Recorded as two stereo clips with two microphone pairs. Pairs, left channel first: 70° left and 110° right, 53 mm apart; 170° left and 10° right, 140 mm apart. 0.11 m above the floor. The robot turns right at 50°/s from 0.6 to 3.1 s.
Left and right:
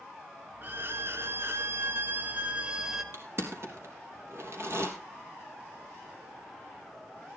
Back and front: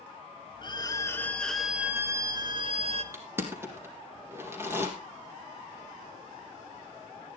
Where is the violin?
145° right, 0.9 m; by 3.0 s 25° right, 0.9 m.